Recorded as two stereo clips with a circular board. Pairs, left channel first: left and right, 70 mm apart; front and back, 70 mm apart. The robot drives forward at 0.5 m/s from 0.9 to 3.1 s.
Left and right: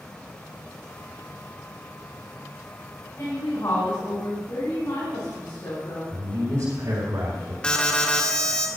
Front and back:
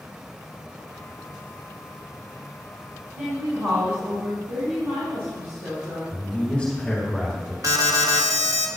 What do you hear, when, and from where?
3.2 s a woman speaking: 125° left, 3 m
6.1 s a woman speaking: 80° right, 3 m
7.6 s an alarm: 165° left, 1.0 m